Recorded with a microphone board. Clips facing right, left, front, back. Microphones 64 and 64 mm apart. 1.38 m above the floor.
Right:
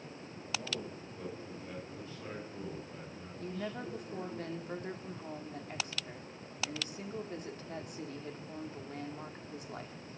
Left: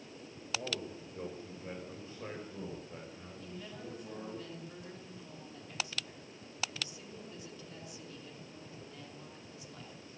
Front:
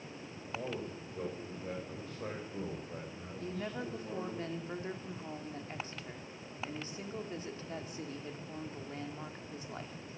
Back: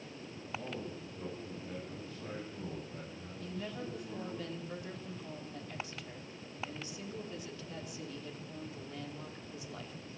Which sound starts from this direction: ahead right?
A woman speaking, at 3.4 s.